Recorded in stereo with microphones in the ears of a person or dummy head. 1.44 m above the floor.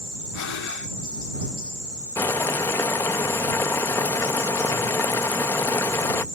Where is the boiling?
10° left (ahead or behind).